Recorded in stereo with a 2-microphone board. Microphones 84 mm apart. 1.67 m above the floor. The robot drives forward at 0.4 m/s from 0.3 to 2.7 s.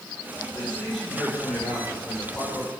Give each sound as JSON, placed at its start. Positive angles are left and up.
{"t": 0.5, "sound": "a man speaking", "side_deg": 5, "distance_m": 5.0}